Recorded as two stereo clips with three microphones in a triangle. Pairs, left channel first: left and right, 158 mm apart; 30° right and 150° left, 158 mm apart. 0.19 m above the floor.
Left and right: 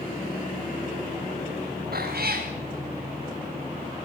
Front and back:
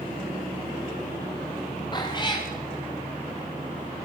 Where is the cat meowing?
90° right, 7 m.